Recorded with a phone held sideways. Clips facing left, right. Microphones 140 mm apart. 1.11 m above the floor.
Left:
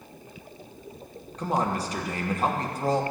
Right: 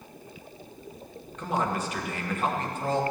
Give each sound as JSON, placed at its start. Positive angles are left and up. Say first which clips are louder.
{"t": 1.4, "sound": "a man speaking", "louder": "left 2 dB", "side_deg": 35, "distance_m": 1.2}